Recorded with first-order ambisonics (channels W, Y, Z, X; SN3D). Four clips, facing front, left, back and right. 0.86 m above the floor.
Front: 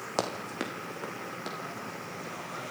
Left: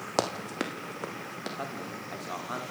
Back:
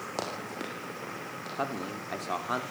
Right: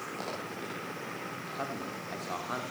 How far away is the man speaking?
About 2.5 m.